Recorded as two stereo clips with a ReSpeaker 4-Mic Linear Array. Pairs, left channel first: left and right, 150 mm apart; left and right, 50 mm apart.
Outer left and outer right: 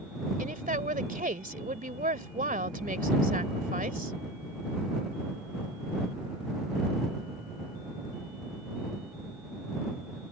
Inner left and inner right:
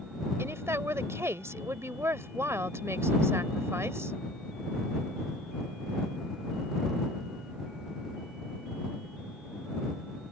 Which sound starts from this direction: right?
A woman speaking, at 0.4 s.